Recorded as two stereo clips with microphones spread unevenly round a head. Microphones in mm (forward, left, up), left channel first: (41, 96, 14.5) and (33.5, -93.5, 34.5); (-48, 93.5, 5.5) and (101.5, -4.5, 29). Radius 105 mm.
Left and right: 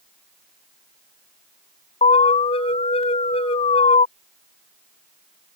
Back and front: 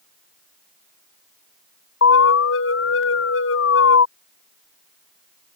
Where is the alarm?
155° left.